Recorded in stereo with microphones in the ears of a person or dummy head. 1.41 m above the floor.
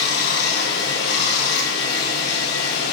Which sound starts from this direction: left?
Running water, at 0.0 s.